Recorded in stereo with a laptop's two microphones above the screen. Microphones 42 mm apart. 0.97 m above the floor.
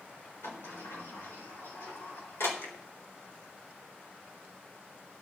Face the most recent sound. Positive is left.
turn(degrees=75)  # may be behind; listen again after turning